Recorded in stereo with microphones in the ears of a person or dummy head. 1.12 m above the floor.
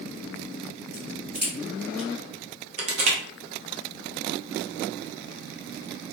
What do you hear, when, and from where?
0.9 s a crack: 10° right (ahead or behind), 1.4 m
2.8 s crushing: 35° right (ahead or behind), 0.6 m